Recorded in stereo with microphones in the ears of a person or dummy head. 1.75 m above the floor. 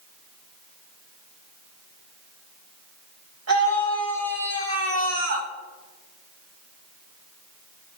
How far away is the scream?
About 2 m.